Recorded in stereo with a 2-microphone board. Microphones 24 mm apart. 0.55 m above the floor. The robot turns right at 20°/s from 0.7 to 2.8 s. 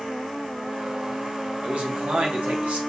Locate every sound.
1.6 s a man speaking: 60° right (ahead or behind), 2.5 m; by 2.8 s 75° right (ahead or behind), 2.5 m